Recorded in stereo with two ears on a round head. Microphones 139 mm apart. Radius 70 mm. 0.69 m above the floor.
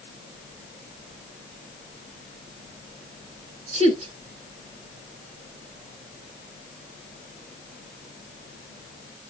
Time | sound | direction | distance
3.7 | a woman speaking | 50° right (ahead or behind) | 3 m